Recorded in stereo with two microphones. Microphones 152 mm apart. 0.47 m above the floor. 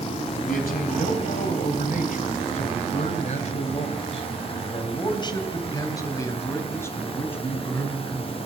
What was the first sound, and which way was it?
A man speaking, 70° left (ahead or behind).